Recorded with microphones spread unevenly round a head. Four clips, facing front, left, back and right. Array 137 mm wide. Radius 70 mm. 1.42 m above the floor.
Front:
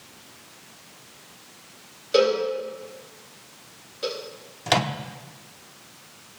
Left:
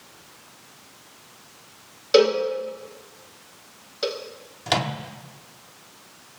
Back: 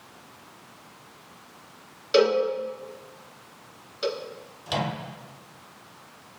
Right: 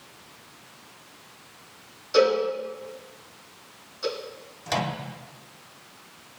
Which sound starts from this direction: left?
A cowbell, at 2.1 s.